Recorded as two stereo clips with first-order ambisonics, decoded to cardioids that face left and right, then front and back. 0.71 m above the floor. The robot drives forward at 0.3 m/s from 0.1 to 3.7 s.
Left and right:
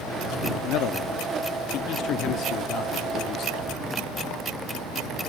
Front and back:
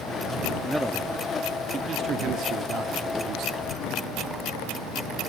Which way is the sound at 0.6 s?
95° left.